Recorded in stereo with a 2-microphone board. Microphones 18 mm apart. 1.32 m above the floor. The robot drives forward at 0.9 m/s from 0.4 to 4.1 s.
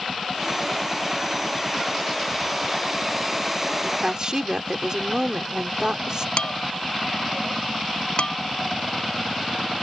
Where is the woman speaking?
40° right (ahead or behind).